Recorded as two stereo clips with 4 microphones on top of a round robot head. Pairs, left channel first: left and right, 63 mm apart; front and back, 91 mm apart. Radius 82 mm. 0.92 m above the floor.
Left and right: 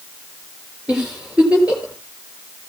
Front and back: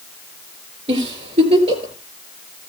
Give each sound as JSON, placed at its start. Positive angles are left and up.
{"t": 0.9, "sound": "a giggle", "azimuth_deg": -165, "distance_m": 3.5}